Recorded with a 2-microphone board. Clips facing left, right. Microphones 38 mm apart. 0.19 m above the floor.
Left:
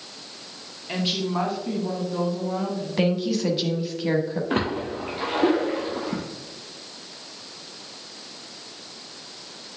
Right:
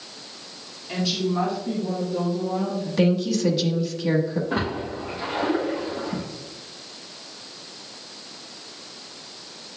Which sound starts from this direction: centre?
A woman speaking, at 3.0 s.